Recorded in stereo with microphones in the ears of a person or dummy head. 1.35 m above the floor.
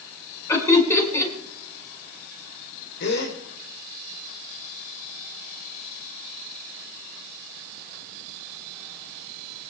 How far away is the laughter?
About 5 m.